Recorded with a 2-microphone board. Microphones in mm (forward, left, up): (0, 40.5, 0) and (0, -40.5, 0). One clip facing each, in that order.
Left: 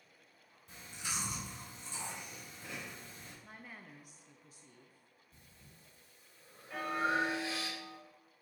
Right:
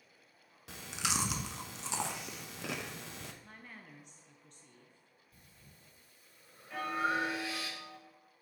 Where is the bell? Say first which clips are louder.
Even; centre (ahead or behind), 1.0 m.